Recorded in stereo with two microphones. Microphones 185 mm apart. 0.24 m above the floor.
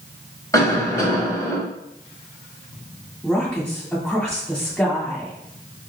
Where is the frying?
I don't hear frying.